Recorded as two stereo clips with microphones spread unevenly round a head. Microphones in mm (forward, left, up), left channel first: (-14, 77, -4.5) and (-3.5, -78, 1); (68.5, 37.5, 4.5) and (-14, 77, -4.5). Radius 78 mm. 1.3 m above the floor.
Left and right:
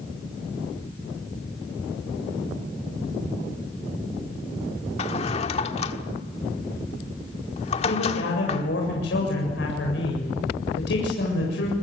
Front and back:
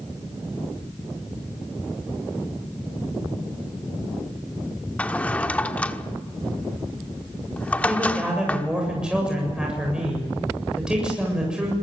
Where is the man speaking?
75° left, 7.5 m.